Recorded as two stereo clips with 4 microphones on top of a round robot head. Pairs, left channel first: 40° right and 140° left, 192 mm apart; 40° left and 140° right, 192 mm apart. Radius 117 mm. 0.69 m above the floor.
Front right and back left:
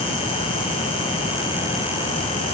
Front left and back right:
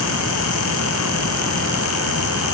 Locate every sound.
Only background noise.